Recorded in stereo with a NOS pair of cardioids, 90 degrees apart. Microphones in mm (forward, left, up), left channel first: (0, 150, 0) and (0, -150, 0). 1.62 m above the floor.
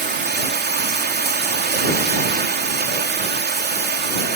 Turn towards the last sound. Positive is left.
turn(degrees=-35)